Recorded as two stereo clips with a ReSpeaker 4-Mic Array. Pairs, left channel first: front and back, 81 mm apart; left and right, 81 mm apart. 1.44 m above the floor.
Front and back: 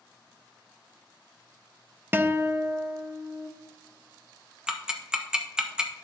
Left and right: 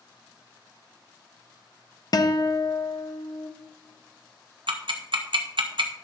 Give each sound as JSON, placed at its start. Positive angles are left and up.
{"t": 2.1, "sound": "a guitar", "azimuth_deg": 120, "distance_m": 0.6}
{"t": 4.7, "sound": "ticking", "azimuth_deg": -100, "distance_m": 1.0}